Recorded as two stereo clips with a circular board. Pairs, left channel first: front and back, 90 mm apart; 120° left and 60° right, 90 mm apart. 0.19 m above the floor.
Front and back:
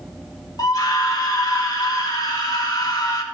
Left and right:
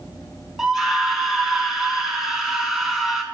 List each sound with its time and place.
0.6 s a scream: 25° left, 2 m